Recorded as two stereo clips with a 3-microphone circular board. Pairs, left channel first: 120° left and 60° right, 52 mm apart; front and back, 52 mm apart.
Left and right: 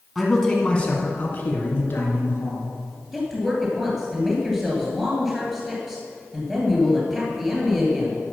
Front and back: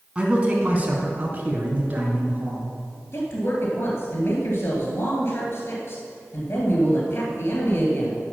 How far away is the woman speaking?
About 2.5 m.